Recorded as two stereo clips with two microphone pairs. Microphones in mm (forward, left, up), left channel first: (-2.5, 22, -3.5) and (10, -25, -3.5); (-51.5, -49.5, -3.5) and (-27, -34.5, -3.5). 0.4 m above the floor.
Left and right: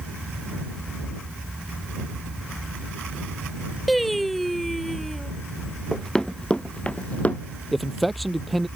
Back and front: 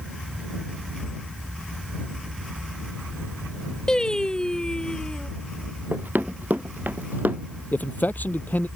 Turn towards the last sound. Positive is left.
turn(degrees=-165)